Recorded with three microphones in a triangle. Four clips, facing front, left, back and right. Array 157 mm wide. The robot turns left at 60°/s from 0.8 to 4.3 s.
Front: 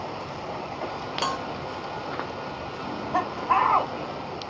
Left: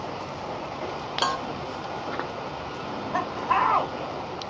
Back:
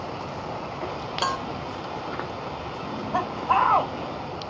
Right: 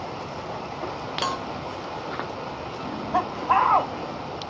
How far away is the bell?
About 0.5 m.